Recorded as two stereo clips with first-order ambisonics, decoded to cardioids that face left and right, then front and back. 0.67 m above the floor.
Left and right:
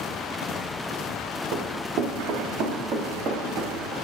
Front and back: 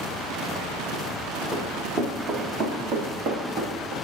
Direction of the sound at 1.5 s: 120° right.